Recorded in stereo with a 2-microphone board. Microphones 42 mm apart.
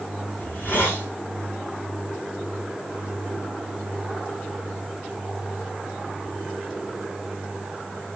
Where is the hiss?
40° left (ahead or behind), 6 m.